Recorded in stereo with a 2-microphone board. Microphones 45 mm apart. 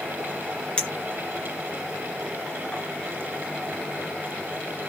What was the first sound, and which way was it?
A clink, 20° left (ahead or behind).